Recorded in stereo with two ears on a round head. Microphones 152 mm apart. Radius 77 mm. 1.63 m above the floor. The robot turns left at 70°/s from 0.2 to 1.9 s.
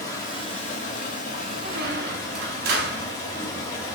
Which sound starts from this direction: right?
A squeak, at 1.6 s.